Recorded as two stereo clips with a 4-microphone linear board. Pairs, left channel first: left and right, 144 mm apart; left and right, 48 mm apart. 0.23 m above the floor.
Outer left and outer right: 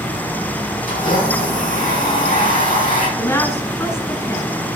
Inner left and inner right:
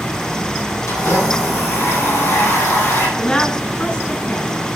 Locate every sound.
0.9 s a blender: 85° left, 8.5 m
3.2 s a woman speaking: 20° left (ahead or behind), 1.8 m